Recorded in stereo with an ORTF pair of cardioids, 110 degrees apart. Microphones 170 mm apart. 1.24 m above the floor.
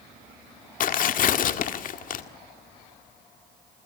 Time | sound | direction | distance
0.8 | tearing paper | 55° left | 1.7 m